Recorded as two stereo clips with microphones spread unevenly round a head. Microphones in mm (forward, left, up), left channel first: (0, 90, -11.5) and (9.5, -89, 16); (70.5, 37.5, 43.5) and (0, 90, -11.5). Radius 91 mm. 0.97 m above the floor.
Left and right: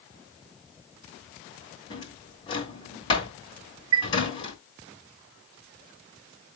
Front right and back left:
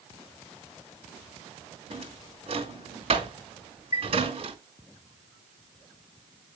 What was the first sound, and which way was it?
A drawer, 160° left.